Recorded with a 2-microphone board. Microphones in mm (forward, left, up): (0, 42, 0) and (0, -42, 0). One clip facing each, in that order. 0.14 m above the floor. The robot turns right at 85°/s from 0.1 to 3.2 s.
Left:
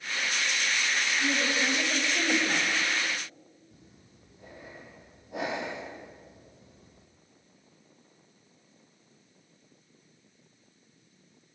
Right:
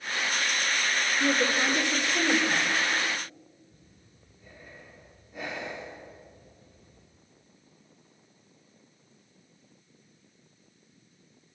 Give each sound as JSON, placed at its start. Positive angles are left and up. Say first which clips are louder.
{"t": 1.2, "sound": "a woman speaking", "louder": "right 5 dB", "azimuth_deg": -100, "distance_m": 10.0}
{"t": 3.7, "sound": "breathing", "louder": "left 2 dB", "side_deg": 75, "distance_m": 4.0}